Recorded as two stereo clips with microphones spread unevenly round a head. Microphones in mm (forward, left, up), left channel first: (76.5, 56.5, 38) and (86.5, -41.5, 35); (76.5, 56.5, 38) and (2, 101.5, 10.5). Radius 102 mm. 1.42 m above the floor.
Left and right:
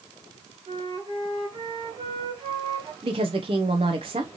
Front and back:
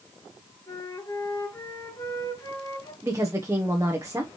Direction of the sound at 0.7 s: 50° right.